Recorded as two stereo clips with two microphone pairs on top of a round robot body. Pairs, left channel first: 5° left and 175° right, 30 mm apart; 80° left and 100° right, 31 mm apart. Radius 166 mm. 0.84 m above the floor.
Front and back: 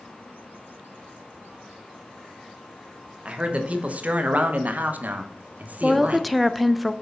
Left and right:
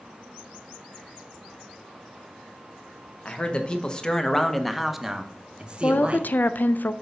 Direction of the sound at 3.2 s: 130° left.